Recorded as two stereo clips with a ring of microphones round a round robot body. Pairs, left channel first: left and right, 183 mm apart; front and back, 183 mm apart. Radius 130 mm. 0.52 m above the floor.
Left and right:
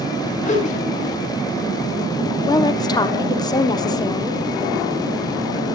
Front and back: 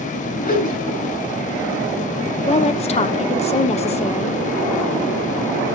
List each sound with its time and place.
0.4 s a whoosh: 40° left, 3.5 m
2.5 s a woman speaking: 30° left, 1.3 m